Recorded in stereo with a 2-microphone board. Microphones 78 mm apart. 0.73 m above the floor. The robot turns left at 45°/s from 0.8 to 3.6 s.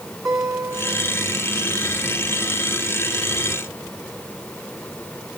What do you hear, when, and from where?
0.2 s a guitar: 40° right (ahead or behind), 4.5 m; by 1.3 s 65° right (ahead or behind), 4.5 m